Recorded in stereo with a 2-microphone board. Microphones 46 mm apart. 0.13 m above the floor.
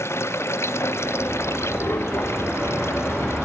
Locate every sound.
0.0 s running water: 80° left